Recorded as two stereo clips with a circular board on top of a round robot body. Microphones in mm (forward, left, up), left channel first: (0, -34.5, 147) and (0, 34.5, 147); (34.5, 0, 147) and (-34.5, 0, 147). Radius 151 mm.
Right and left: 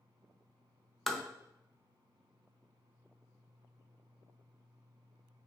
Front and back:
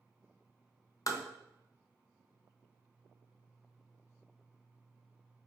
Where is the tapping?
5° right, 0.6 m.